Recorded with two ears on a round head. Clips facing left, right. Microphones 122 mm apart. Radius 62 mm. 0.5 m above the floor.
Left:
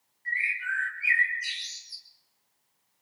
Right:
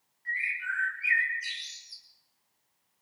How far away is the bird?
About 2 m.